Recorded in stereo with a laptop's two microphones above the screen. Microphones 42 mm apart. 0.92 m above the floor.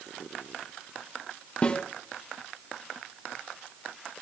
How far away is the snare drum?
About 0.8 m.